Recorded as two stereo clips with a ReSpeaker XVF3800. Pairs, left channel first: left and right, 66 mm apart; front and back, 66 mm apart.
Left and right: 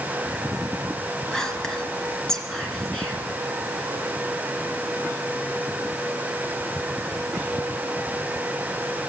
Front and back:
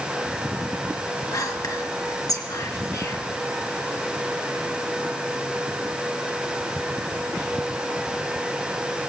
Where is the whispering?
10° left, 3 m.